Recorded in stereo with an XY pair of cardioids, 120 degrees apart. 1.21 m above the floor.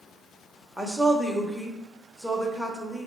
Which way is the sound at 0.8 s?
5° left.